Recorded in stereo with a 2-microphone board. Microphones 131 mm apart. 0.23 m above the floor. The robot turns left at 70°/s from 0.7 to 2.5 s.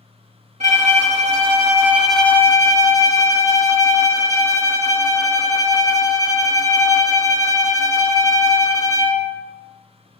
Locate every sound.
0.6 s a violin: 80° right, 0.6 m; by 9.4 s 155° left, 0.6 m